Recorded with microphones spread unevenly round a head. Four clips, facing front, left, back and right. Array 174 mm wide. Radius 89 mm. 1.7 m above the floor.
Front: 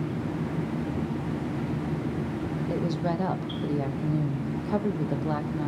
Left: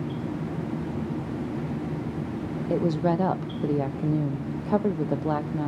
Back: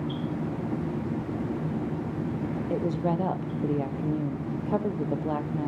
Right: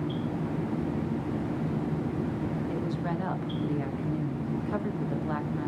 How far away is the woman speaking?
About 0.7 m.